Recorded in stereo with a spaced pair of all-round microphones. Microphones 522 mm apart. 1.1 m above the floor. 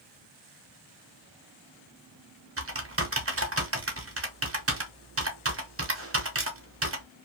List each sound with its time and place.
2.6 s typing on a keyboard: 25° right (ahead or behind), 0.7 m